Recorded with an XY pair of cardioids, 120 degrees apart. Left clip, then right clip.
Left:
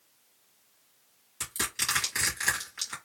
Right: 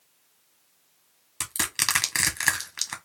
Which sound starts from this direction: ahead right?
Crushing, at 1.4 s.